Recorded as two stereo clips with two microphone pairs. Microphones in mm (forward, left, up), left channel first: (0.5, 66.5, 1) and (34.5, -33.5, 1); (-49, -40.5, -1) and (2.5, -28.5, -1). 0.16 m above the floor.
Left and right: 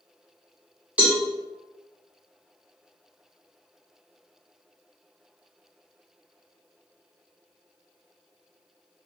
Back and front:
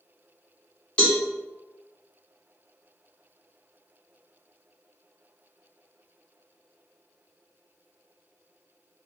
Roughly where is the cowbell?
Behind right.